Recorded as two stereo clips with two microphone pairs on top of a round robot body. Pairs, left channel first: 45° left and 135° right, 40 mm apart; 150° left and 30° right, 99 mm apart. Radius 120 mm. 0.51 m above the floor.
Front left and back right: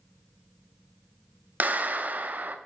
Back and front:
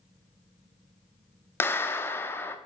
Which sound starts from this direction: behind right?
A clap, at 1.6 s.